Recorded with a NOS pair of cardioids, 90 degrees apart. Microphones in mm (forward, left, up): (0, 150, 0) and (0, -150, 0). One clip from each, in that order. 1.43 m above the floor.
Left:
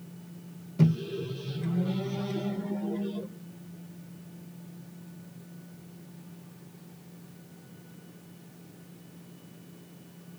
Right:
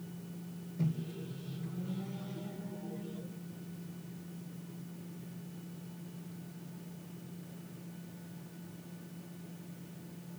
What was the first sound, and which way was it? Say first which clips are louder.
A microwave: left 11 dB; 65° left.